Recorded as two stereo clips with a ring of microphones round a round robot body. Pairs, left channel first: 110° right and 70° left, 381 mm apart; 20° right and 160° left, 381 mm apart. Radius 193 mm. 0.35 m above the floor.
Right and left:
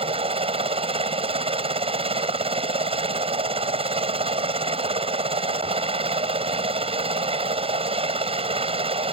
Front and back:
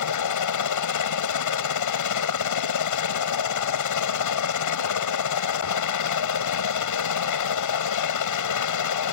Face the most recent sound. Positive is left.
turn(degrees=-5)